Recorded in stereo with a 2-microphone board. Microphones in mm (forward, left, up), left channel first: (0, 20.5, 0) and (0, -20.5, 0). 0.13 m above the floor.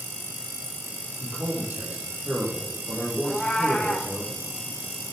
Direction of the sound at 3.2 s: 10° left (ahead or behind).